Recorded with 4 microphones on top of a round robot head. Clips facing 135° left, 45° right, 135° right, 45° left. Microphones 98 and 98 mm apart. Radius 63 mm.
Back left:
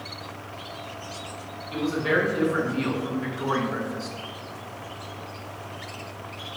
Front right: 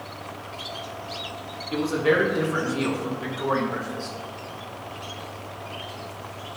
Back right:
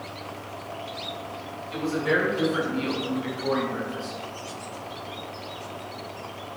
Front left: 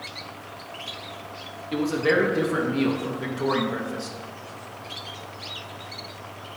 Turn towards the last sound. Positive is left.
turn(degrees=55)